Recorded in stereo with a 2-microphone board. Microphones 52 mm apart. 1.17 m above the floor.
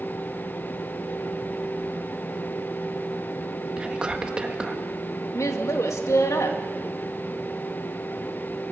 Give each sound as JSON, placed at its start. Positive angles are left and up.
{"t": 3.8, "sound": "whispering", "side_deg": -20, "distance_m": 1.7}
{"t": 5.3, "sound": "a woman speaking", "side_deg": 75, "distance_m": 2.0}